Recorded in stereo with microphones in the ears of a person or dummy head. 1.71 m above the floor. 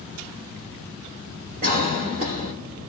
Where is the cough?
45° right (ahead or behind), 1.5 m.